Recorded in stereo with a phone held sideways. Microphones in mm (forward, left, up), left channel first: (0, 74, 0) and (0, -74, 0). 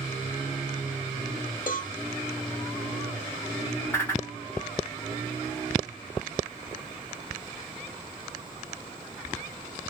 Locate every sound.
1.7 s a cowbell: 70° left (ahead or behind), 0.5 m
3.9 s a whoosh: 15° left (ahead or behind), 1.2 m